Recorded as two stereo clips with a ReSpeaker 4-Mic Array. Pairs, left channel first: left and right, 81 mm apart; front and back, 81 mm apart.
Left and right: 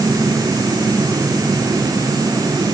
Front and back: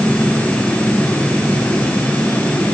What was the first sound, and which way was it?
Only background noise.